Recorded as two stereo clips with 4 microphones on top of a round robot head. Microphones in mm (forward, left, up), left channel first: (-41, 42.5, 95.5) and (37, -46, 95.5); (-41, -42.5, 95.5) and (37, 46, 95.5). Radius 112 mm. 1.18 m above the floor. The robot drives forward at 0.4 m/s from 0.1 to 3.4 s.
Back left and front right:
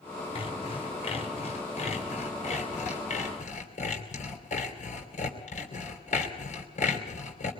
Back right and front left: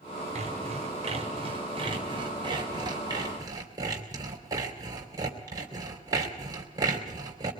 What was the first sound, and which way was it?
Sawing, 85° left.